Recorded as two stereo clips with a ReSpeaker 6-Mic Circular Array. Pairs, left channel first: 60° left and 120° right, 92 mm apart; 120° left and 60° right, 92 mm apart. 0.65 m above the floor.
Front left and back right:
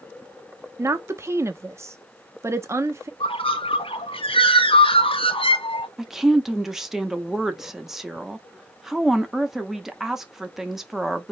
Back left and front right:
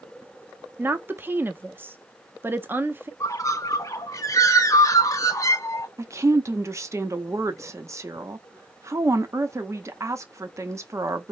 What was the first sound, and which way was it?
A woman speaking, 105° right.